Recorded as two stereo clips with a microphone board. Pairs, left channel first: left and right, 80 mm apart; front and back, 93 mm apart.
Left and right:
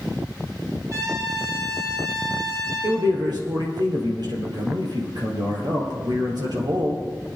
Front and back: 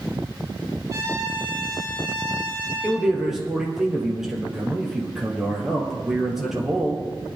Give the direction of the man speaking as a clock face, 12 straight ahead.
3 o'clock.